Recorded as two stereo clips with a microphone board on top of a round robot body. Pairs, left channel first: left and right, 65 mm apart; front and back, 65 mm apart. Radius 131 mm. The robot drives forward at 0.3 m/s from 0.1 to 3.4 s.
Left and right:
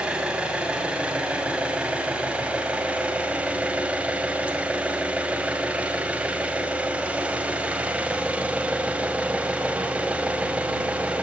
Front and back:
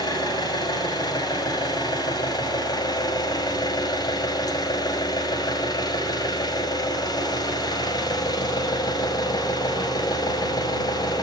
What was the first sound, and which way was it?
An engine running, 15° right.